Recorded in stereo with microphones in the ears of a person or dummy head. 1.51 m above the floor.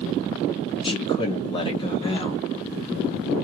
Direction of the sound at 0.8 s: 25° left (ahead or behind).